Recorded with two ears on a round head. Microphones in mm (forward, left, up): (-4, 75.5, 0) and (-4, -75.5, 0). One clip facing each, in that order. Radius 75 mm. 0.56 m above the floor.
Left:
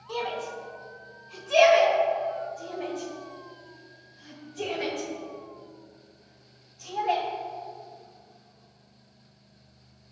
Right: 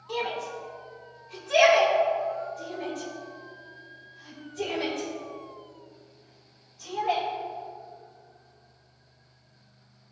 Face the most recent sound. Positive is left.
turn(degrees=0)  # may be behind; listen again after turning